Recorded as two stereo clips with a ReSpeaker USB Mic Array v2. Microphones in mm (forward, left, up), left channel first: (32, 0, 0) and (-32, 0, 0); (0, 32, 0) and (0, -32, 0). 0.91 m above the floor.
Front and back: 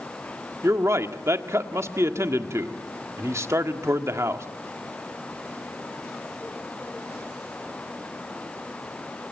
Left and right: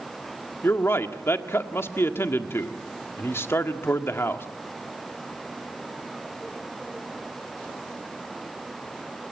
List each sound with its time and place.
0.6 s a man speaking: 140° left, 1.5 m